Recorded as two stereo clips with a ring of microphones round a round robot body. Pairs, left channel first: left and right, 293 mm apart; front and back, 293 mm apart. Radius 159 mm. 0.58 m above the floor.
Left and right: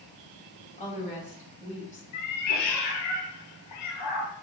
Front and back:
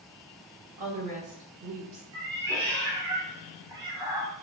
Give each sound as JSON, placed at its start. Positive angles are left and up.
{"t": 0.8, "sound": "a woman speaking", "azimuth_deg": 155, "distance_m": 2.5}
{"t": 2.1, "sound": "a cat meowing", "azimuth_deg": 105, "distance_m": 1.1}